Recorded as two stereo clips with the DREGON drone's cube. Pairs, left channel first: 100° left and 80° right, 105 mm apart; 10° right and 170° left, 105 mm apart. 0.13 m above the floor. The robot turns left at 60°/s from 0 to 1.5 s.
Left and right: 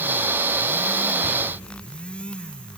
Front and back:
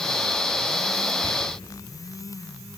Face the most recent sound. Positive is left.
turn(degrees=180)